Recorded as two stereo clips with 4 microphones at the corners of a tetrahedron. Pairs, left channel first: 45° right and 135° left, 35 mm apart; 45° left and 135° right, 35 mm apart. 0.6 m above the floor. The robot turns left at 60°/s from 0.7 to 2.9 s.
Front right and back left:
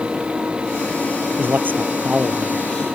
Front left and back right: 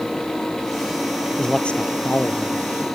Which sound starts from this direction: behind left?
A man speaking, at 1.4 s.